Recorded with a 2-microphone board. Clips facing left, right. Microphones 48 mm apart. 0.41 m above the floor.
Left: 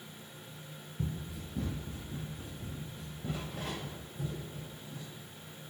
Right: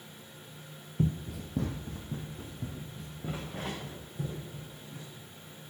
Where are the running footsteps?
55° right (ahead or behind), 0.6 m; by 5.0 s 45° right (ahead or behind), 4.5 m.